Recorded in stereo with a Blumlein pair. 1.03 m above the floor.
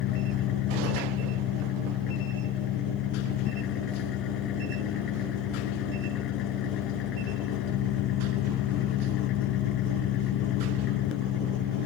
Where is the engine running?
35° left.